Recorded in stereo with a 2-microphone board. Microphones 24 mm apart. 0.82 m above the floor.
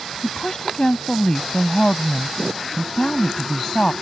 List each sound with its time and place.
0.2 s a woman speaking: 35° left (ahead or behind)